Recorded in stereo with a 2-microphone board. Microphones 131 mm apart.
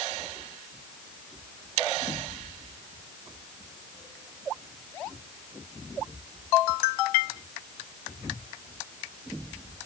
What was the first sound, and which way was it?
Only background noise.